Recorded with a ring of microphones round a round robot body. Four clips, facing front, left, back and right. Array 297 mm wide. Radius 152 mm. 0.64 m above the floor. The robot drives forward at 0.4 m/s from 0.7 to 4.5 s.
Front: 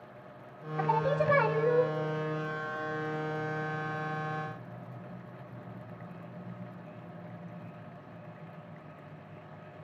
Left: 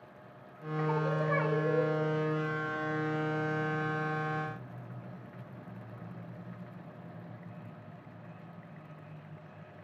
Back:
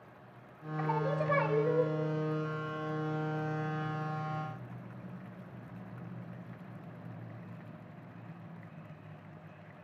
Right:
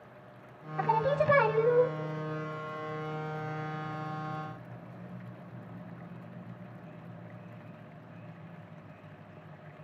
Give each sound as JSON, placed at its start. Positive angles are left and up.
{"t": 0.8, "sound": "singing", "azimuth_deg": -55, "distance_m": 1.6}